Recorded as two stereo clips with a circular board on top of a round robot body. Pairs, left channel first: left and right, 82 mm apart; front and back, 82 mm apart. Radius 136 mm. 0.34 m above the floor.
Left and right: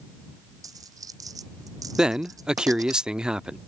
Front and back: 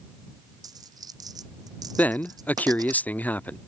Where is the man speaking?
25° right.